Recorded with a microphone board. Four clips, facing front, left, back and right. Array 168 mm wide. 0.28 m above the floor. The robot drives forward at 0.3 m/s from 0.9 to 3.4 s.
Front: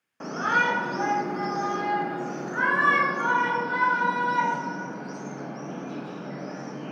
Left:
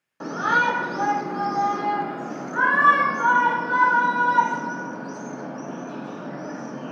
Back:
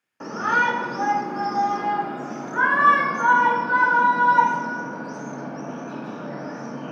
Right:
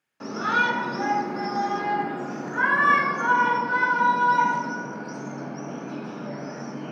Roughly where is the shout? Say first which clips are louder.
Left 3 dB, back 3 dB; left.